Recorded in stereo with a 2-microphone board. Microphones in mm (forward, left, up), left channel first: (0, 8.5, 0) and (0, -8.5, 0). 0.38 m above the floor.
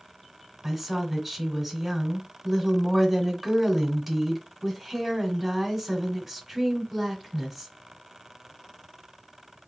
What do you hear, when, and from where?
0.6 s a woman speaking: 20° right (ahead or behind), 1.1 m